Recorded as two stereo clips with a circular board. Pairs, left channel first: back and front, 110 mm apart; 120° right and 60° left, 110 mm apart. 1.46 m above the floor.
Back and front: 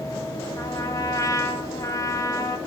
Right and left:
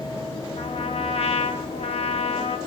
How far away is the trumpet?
About 0.5 m.